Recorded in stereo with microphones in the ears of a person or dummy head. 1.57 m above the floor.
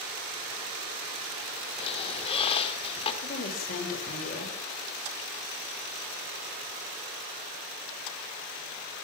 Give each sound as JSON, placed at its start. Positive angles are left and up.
{"t": 1.8, "sound": "a squeak", "side_deg": 35, "distance_m": 3.5}
{"t": 3.2, "sound": "a woman speaking", "side_deg": 45, "distance_m": 7.0}